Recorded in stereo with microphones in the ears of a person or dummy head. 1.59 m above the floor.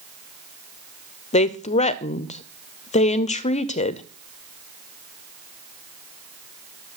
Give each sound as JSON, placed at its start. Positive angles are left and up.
{"t": 1.3, "sound": "a woman speaking", "side_deg": 35, "distance_m": 0.6}